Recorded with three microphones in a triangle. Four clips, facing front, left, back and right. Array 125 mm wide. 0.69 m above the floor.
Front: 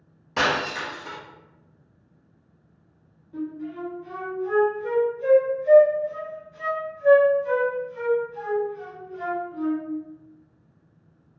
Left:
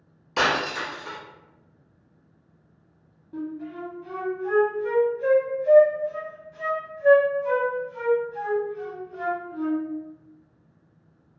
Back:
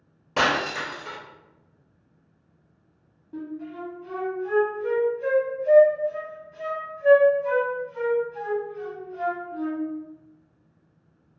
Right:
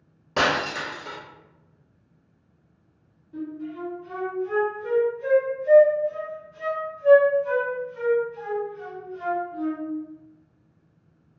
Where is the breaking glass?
125° right, 1.2 m.